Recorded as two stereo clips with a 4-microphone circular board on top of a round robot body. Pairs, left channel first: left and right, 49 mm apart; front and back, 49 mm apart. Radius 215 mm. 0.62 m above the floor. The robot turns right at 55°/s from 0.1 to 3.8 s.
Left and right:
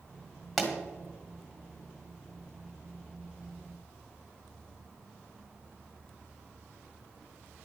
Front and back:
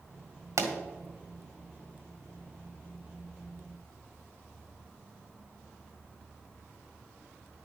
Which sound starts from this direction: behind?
A pop, at 0.6 s.